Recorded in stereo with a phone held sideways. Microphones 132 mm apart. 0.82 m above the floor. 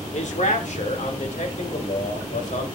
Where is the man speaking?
65° left (ahead or behind), 2 m; by 2.7 s 70° left (ahead or behind), 4 m.